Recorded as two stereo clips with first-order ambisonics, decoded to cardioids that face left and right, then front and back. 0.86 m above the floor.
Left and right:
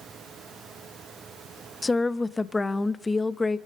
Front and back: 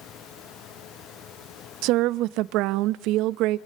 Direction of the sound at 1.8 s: 165° left.